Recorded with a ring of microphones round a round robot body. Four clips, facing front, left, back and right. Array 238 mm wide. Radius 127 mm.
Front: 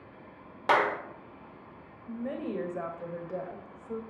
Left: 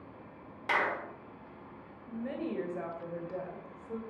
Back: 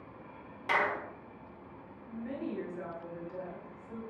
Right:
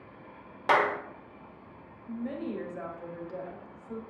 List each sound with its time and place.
0.7 s a clap: 45° right, 1.3 m
2.1 s a woman speaking: 15° left, 2.5 m